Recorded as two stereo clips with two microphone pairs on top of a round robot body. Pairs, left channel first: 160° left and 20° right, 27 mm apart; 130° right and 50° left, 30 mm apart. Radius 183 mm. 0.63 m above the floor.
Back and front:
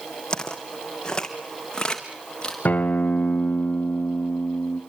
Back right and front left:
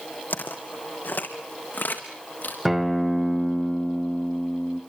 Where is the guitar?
135° left, 0.7 m.